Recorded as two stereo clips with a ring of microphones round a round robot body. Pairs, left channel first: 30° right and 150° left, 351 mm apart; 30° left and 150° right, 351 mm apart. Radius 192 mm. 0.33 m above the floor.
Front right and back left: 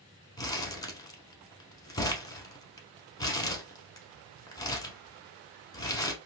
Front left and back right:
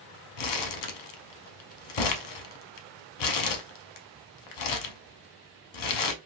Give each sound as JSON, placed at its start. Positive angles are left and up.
{"t": 0.4, "sound": "crumpling", "azimuth_deg": 50, "distance_m": 0.7}